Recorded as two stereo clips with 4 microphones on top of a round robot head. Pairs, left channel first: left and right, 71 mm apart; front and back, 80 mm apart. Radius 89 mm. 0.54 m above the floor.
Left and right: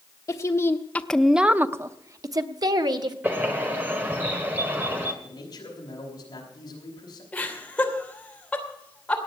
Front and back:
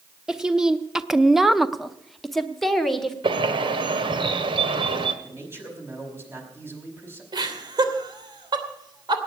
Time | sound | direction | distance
0.3 | a woman speaking | 100° left | 1.0 m
3.2 | a bird | 160° right | 1.4 m
5.2 | a man speaking | 125° left | 5 m
7.3 | laughter | 165° left | 3 m